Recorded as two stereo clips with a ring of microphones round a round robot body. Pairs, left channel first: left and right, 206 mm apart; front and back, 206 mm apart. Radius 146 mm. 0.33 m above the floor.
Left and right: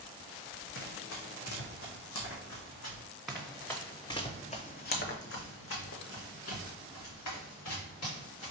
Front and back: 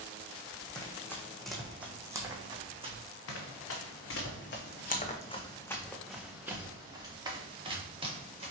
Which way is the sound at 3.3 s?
Straight ahead.